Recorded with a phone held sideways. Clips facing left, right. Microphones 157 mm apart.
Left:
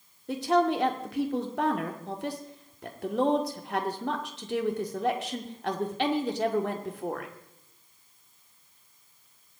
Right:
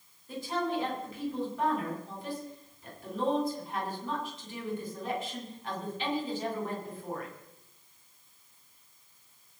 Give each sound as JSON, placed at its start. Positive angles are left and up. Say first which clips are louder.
{"t": 0.3, "sound": "a woman speaking", "louder": "left 8 dB", "side_deg": 80, "distance_m": 2.0}